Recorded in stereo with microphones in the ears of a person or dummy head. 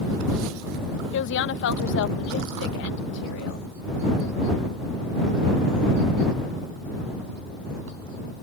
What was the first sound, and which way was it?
A woman speaking, 75° left (ahead or behind).